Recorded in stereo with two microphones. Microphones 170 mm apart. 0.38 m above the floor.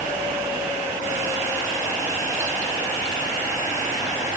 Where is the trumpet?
I don't hear a trumpet.